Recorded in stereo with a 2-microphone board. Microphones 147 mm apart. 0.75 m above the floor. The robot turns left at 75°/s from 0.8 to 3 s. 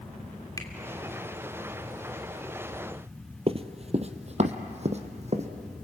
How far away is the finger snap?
About 2.5 m.